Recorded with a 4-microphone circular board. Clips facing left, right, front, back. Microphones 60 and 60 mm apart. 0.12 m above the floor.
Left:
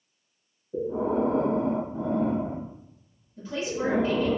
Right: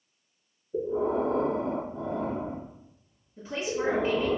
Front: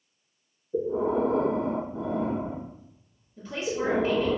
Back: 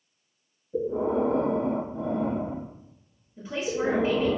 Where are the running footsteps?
No running footsteps in this recording.